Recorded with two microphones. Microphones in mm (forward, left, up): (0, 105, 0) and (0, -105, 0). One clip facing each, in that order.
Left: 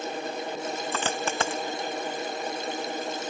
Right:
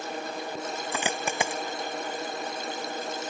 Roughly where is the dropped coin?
Centre.